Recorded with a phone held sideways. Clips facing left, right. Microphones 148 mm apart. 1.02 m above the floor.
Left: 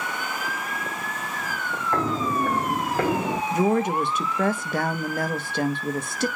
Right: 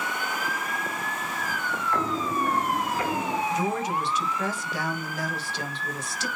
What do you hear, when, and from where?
1.9 s footsteps: 35° left (ahead or behind), 2 m; by 3.4 s 60° left (ahead or behind), 1.9 m
3.5 s a woman speaking: 55° left (ahead or behind), 1.3 m